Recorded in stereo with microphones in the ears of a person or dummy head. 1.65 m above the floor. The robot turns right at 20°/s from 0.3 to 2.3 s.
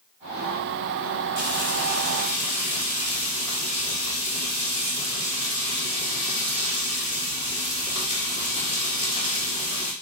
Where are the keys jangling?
No keys jangling in this recording.